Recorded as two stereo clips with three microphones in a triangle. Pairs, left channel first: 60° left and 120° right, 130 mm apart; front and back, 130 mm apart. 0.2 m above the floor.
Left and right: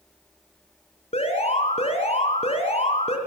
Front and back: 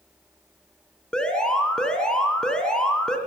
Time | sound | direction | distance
1.1 | an alarm | 85° left | 3 m